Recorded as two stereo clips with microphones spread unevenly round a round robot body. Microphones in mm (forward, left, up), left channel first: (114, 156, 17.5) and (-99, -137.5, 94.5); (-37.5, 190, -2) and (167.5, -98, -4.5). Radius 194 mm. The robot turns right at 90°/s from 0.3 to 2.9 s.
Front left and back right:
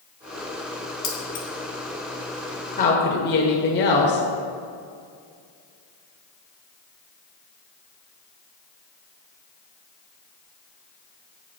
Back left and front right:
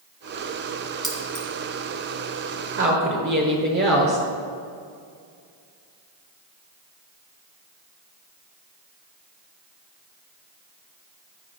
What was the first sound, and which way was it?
Keys jangling, 35° left.